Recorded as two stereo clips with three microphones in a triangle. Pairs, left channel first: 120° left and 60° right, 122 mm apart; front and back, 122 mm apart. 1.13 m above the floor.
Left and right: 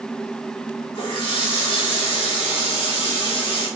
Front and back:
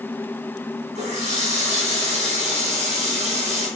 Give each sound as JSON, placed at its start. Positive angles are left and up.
{"t": 0.9, "sound": "a running tap", "azimuth_deg": 165, "distance_m": 3.0}